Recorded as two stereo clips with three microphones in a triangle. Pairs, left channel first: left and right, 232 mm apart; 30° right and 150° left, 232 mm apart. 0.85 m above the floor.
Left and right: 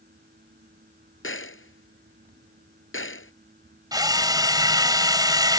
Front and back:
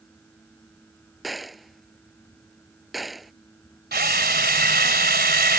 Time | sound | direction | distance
1.2 | a gunshot | 60° left | ?
3.9 | a drill | 165° right | ?